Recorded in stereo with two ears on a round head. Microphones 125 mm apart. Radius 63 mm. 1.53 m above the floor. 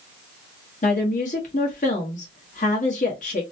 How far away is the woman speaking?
About 1.2 m.